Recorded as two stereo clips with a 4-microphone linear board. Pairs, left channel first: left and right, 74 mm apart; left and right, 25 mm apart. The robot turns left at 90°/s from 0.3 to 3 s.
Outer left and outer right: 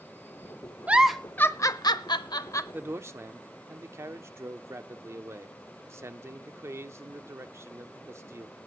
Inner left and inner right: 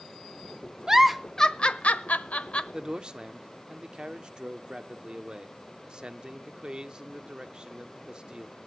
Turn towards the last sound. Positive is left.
turn(degrees=-35)  # may be behind; listen again after turning